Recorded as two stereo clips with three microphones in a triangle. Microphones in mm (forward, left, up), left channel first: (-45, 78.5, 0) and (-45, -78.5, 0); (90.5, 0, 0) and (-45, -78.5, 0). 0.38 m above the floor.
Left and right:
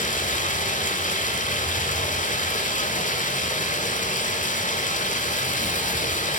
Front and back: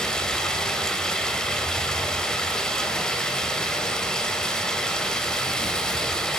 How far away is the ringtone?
No ringtone in this recording.